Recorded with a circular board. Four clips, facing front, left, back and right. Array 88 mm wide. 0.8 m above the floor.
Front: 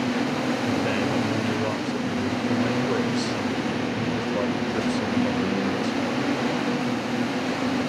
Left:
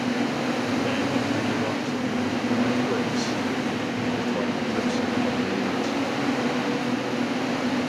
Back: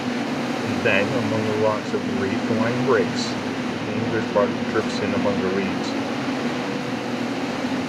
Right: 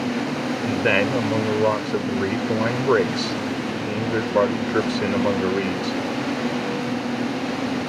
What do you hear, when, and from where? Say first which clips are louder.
0.6 s a man speaking: right 4 dB, back 3 dB; 130° right